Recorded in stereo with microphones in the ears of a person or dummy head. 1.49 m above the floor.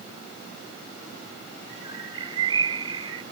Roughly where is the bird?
Right.